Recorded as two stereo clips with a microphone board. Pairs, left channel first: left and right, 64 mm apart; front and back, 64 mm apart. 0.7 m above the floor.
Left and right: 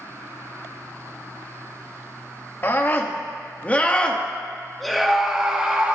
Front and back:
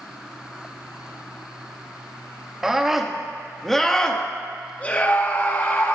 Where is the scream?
105° left, 1.4 m; by 6.0 s 30° right, 1.4 m.